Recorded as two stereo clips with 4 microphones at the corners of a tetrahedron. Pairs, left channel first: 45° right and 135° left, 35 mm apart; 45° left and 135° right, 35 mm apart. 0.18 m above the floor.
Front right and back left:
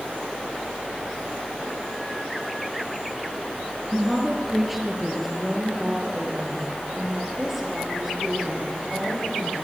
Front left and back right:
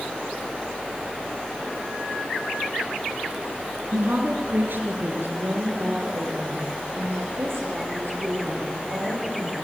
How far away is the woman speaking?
About 2.5 m.